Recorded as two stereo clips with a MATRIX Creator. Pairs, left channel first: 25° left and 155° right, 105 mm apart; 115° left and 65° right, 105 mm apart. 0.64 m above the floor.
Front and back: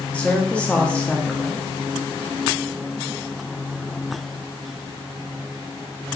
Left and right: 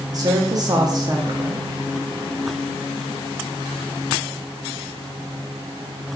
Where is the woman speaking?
50° right, 0.7 m.